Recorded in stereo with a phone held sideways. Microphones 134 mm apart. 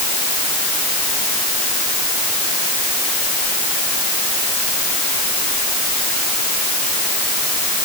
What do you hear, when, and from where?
Only background noise.